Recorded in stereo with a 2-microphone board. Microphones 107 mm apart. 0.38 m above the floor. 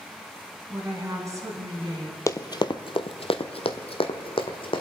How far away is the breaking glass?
I don't hear breaking glass.